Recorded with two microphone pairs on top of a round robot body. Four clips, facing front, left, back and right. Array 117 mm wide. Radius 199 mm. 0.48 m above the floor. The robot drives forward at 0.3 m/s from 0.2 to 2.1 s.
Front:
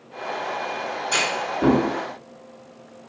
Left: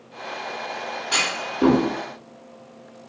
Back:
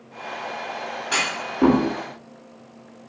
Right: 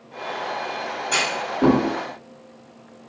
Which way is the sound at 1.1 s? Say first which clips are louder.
Right 3 dB, front 2 dB; 170° left.